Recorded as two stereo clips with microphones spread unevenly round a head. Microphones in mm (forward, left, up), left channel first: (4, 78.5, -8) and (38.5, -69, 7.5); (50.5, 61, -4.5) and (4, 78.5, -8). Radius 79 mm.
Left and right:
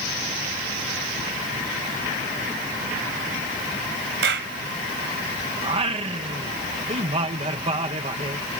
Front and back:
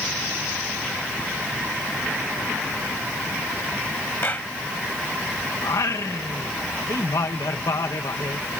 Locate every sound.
4.2 s a clap: 95° right
5.6 s singing: 25° right